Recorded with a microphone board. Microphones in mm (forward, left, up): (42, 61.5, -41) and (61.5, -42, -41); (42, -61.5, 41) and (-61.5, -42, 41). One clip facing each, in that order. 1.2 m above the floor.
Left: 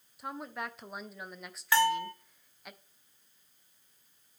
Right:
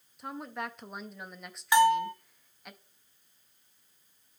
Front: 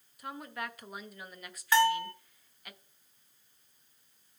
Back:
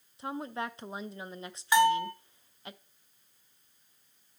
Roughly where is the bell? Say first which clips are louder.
Right 5 dB, back 2 dB; behind right.